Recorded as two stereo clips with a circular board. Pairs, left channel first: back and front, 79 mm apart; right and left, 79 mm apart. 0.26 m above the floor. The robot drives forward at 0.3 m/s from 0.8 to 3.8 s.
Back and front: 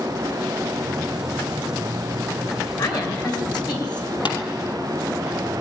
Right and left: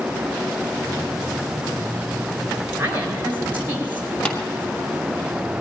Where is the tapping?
170° right, 2.5 m.